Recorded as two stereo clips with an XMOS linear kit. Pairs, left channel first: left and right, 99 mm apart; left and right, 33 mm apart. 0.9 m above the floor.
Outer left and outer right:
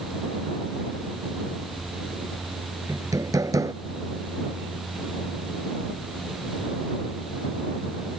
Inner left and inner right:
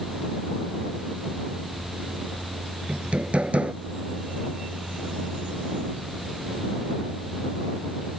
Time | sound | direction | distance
2.9 | hammering | 35° right (ahead or behind) | ?